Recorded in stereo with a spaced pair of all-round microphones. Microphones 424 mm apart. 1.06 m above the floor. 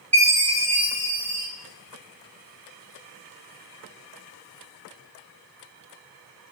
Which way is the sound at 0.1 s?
70° right (ahead or behind).